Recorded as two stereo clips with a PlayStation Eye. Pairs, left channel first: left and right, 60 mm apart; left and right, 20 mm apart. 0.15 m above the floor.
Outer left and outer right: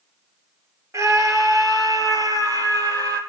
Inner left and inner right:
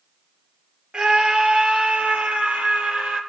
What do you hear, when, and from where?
0.9 s a scream: 45° right (ahead or behind), 2.5 m; by 3.2 s 70° right (ahead or behind), 3.5 m